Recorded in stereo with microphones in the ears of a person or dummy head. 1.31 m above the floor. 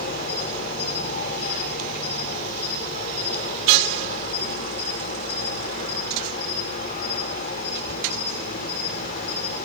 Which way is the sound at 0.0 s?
50° left (ahead or behind).